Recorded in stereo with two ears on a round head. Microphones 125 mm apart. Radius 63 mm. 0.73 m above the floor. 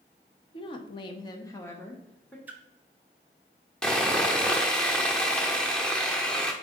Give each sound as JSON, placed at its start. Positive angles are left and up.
{"t": 0.5, "sound": "a woman speaking", "side_deg": 35, "distance_m": 0.7}
{"t": 2.5, "sound": "a splash", "side_deg": -15, "distance_m": 0.5}
{"t": 3.8, "sound": "sawing", "side_deg": 5, "distance_m": 0.6}